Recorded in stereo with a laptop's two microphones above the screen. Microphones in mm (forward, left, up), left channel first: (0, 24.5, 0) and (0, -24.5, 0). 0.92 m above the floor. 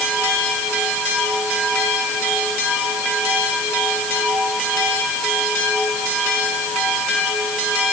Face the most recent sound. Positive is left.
No sound to turn to.